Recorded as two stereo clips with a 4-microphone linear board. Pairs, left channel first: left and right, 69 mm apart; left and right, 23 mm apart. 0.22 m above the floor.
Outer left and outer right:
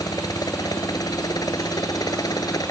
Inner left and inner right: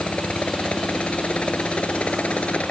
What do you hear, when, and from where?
0.0 s a helicopter: 65° left (ahead or behind)